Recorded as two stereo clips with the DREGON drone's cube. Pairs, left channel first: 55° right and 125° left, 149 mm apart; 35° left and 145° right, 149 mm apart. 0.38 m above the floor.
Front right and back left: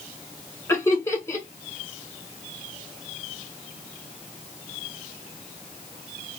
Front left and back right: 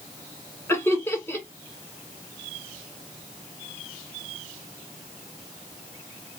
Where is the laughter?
20° right, 1.4 m.